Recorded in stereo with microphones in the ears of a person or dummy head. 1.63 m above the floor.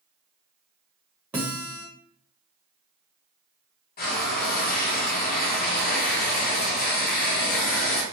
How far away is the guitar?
About 0.8 m.